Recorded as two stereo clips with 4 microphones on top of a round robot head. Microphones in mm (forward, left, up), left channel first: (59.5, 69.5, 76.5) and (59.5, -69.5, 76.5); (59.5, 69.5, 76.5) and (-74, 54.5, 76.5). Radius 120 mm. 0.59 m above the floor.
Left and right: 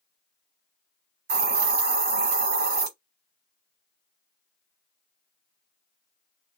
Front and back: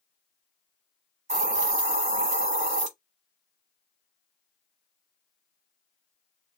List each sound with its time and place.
1.3 s a hiss: 120° right, 0.9 m